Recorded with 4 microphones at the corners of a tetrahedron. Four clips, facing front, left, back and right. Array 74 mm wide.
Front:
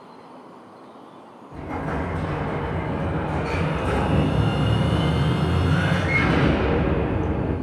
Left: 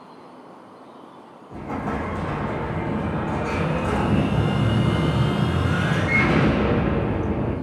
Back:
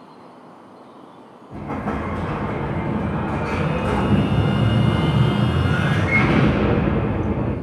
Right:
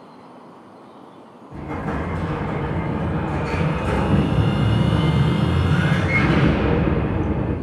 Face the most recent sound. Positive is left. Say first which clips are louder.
# right 1 dB, back 2 dB
turn(degrees=155)